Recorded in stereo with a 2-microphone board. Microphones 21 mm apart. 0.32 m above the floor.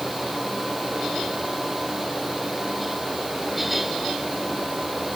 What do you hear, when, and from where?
Only background noise.